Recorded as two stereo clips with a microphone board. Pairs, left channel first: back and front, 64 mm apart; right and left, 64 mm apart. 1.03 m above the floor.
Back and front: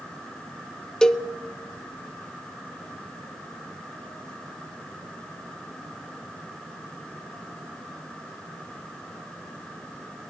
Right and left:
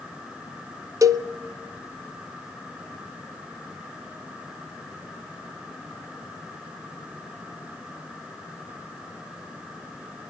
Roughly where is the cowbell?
Left.